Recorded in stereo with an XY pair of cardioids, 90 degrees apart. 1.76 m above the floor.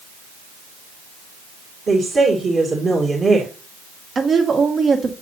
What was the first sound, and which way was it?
A woman speaking, 45° right.